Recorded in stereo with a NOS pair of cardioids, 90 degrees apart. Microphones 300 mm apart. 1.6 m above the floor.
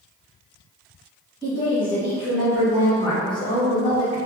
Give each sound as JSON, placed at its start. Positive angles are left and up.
{"t": 1.4, "sound": "a woman speaking", "azimuth_deg": -15, "distance_m": 1.6}